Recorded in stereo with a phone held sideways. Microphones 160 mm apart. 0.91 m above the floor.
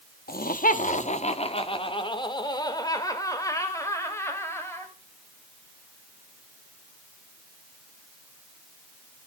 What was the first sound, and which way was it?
Laughter, 70° left (ahead or behind).